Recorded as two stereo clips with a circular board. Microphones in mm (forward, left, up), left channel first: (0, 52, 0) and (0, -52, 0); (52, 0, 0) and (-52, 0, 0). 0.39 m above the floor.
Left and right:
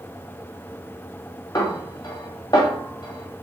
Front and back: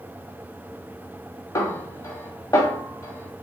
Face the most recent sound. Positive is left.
turn(degrees=50)